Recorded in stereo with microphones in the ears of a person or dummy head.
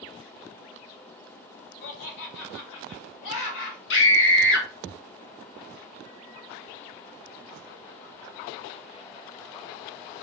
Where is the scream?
60° left (ahead or behind), 1.9 m.